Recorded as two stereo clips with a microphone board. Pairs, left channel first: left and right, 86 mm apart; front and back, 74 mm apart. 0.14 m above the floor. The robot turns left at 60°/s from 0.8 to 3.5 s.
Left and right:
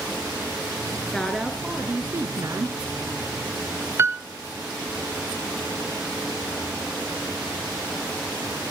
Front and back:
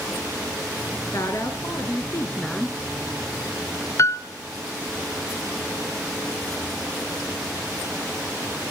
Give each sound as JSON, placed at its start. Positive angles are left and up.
{"t": 1.1, "sound": "a woman speaking", "azimuth_deg": 15, "distance_m": 1.6}
{"t": 4.0, "sound": "a piano", "azimuth_deg": -40, "distance_m": 0.7}